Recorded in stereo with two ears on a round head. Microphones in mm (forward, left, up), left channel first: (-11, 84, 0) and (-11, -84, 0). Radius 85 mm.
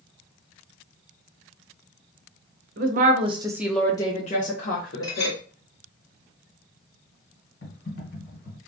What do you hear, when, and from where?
2.8 s a woman speaking: 50° right (ahead or behind), 0.8 m; by 5.4 s 65° left (ahead or behind), 1.2 m
5.0 s a clink: 20° left (ahead or behind), 1.1 m
7.6 s typing on a keyboard: 60° left (ahead or behind), 1.6 m